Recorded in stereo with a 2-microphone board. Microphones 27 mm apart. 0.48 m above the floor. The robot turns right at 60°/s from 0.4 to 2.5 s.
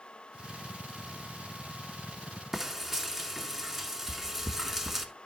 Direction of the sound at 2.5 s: 15° right (ahead or behind).